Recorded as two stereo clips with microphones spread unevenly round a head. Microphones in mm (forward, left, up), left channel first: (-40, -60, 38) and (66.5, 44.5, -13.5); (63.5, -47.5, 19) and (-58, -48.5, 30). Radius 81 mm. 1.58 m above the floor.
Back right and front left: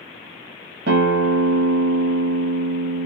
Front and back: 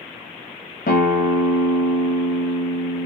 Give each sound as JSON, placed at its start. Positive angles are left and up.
{"t": 0.9, "sound": "a guitar", "azimuth_deg": 15, "distance_m": 1.3}